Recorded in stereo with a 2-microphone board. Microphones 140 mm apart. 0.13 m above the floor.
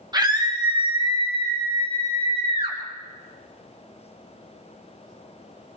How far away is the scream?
About 4 m.